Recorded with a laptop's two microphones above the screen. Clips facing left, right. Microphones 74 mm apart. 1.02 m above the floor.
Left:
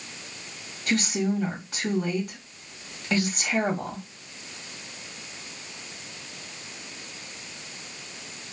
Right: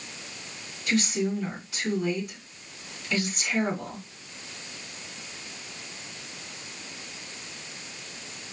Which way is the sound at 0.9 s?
60° left (ahead or behind).